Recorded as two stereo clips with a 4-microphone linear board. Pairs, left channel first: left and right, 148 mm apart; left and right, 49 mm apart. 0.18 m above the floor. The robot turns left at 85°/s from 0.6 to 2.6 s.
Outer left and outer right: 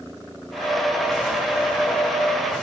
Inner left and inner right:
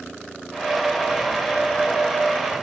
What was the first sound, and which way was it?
Only background noise.